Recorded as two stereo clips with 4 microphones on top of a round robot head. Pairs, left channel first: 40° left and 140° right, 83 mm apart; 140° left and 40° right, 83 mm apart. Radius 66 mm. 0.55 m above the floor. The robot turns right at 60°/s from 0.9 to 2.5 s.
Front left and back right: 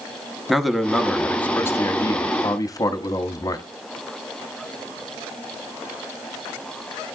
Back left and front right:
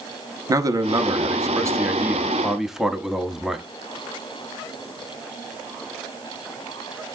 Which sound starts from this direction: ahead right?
A man speaking, at 0.5 s.